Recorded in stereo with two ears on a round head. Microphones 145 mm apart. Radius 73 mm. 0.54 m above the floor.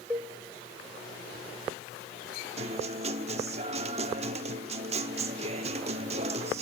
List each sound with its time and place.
0.1 s a cowbell: 10° right (ahead or behind), 1.9 m
2.6 s a guitar: 40° right (ahead or behind), 1.1 m